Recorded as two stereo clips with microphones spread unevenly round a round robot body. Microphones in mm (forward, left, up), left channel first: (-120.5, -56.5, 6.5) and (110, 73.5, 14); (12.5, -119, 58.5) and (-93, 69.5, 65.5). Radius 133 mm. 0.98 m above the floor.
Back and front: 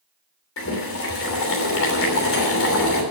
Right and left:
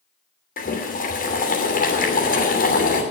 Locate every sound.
0.6 s boiling: 110° right, 3 m